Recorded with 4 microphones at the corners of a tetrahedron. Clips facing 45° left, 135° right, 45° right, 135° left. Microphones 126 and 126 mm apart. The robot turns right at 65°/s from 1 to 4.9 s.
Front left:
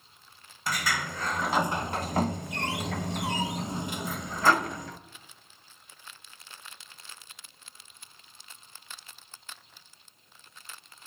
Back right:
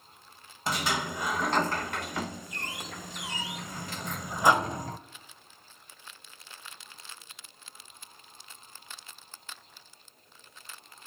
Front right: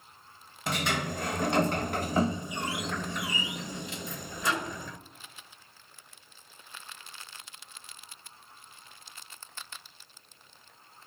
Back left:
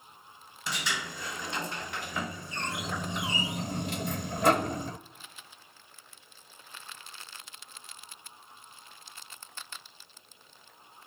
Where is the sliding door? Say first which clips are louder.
Back right 1 dB, front right 5 dB; 70° right, 0.6 m; by 5.0 s straight behind, 0.6 m.